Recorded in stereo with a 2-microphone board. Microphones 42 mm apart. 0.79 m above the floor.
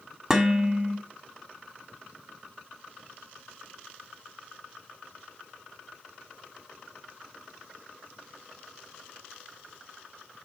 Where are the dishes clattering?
15° right (ahead or behind), 1.2 m.